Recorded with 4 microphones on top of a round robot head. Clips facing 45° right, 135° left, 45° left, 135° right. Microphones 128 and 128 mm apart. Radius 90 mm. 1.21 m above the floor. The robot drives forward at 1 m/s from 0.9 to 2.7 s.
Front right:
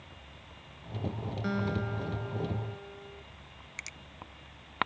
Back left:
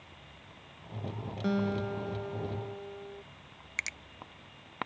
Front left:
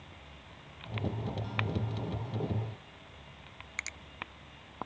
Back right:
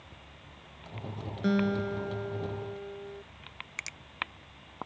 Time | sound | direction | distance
1.4 | a guitar | 155° right | ?
3.8 | a finger snap | 145° left | ?